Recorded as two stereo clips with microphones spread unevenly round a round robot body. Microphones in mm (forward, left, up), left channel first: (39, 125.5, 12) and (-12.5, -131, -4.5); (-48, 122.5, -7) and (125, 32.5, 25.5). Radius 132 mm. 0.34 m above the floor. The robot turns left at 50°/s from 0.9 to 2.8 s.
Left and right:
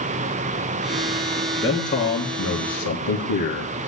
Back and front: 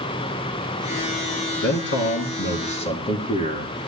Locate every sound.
1.6 s a man speaking: 160° left, 3.5 m; by 3.8 s 105° left, 3.5 m